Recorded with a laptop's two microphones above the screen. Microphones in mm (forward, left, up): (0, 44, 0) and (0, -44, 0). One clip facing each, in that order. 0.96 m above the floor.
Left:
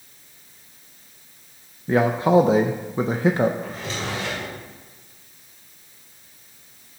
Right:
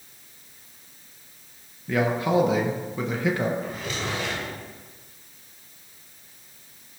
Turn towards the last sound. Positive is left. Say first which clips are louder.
# left 1 dB
turn(degrees=35)  # may be behind; listen again after turning